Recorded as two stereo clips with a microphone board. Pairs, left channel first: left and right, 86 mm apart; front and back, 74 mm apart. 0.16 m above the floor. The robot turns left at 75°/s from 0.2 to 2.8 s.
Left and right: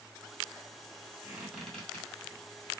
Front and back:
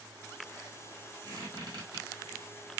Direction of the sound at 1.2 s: 155° right.